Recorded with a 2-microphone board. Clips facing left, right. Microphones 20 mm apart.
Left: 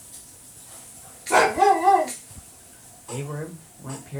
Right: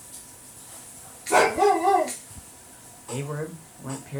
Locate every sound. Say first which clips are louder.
1.3 s a dog barking: left 2 dB; 10° left (ahead or behind), 1.9 m
3.1 s a man speaking: right 1 dB; 10° right (ahead or behind), 1.3 m